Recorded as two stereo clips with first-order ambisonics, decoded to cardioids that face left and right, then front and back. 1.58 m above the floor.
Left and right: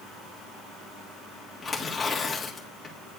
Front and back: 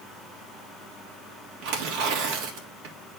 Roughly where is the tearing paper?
Behind.